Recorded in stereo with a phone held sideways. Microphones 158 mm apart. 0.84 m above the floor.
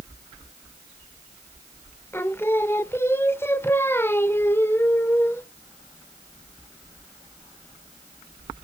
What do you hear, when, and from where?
2.1 s singing: 15° left (ahead or behind), 0.6 m